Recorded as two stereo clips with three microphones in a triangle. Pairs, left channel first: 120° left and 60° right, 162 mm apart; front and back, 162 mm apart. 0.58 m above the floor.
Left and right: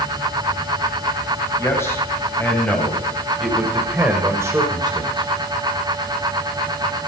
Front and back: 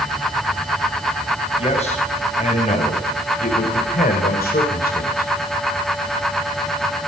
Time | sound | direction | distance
1.6 | a man speaking | 50° left | 4 m